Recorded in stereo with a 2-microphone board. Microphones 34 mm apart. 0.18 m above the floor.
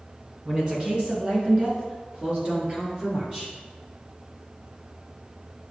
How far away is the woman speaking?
About 1.9 m.